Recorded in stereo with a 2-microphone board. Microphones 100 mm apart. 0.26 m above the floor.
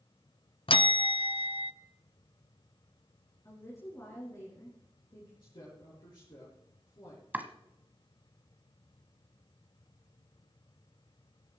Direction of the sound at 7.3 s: 20° right (ahead or behind).